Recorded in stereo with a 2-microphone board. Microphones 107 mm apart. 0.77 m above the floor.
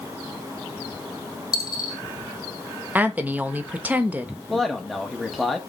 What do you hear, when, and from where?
1.5 s a dropped coin: 35° left (ahead or behind), 2 m
3.0 s a woman speaking: 15° right (ahead or behind), 0.7 m
4.5 s a man speaking: 5° left (ahead or behind), 0.9 m